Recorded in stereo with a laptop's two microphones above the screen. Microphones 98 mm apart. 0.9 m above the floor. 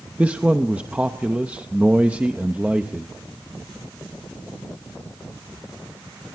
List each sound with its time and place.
0.2 s a man speaking: 15° right (ahead or behind), 0.8 m